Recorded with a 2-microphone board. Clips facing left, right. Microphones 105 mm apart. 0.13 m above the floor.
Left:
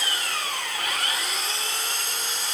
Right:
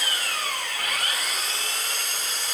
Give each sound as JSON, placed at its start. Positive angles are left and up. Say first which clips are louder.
{"t": 0.0, "sound": "an engine running", "louder": "even", "side_deg": 35, "distance_m": 7.5}